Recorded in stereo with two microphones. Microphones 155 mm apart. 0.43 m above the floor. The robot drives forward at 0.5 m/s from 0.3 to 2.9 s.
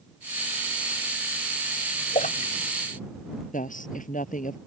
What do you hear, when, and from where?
2.1 s a splash: 60° left (ahead or behind); by 2.5 s 55° left (ahead or behind)
3.5 s a woman speaking: 55° left (ahead or behind)